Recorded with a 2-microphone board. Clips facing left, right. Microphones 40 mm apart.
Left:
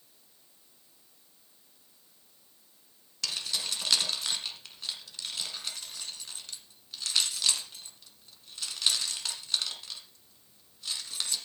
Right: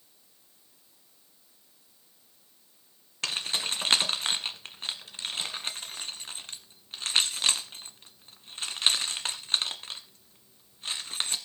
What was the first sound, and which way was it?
Keys jangling, 40° right (ahead or behind).